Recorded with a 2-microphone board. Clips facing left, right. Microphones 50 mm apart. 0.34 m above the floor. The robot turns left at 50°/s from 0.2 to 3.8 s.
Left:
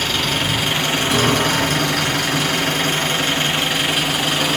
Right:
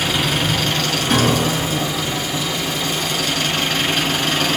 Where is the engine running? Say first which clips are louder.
Right 1 dB; 175° right, 3.5 m; by 4.6 s 5° left, 3.5 m.